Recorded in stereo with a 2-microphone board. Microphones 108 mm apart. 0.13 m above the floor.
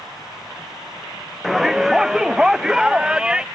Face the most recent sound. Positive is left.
turn(degrees=-10)  # may be behind; listen again after turning